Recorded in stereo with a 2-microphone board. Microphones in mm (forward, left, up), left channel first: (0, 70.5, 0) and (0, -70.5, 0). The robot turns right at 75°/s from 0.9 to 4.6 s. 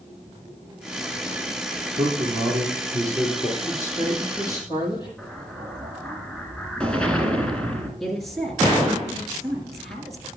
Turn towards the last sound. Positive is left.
turn(degrees=0)  # may be behind; listen again after turning